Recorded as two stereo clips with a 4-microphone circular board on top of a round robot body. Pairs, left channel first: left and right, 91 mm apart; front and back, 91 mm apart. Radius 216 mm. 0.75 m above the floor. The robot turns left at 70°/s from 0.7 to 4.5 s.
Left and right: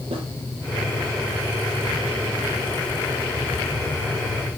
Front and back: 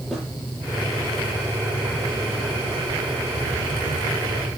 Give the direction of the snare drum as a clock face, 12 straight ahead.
3 o'clock.